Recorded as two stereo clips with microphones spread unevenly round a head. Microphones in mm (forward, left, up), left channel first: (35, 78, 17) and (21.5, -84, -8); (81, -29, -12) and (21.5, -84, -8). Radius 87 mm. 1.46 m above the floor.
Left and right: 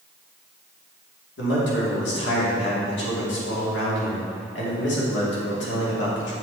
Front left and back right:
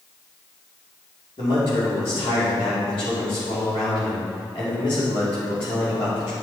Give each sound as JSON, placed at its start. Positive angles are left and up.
{"t": 1.4, "sound": "a man speaking", "azimuth_deg": 90, "distance_m": 3.0}